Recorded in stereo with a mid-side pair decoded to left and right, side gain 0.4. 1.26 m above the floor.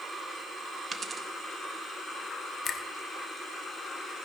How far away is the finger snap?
About 1.6 m.